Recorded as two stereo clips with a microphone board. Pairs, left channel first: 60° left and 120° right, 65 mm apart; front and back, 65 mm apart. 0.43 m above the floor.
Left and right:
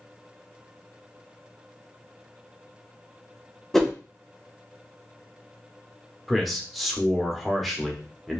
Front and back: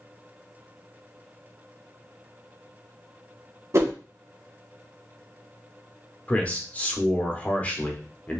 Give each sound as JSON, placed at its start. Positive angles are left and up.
{"t": 3.7, "sound": "a whoosh", "azimuth_deg": 145, "distance_m": 0.6}
{"t": 6.3, "sound": "a man speaking", "azimuth_deg": -30, "distance_m": 0.8}